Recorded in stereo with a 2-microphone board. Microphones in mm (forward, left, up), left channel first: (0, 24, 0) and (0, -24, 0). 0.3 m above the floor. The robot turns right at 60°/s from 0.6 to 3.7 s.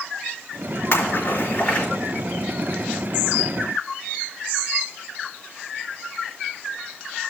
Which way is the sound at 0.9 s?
65° left (ahead or behind).